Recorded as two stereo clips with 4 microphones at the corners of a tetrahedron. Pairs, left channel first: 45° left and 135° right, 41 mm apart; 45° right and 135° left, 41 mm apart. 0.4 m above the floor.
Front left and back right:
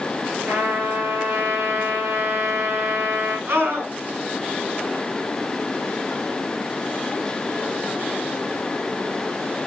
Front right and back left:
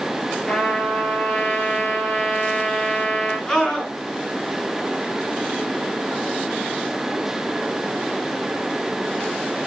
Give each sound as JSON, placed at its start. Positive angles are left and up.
{"t": 0.5, "sound": "a trumpet", "azimuth_deg": -110, "distance_m": 5.0}
{"t": 3.5, "sound": "a scream", "azimuth_deg": -115, "distance_m": 4.5}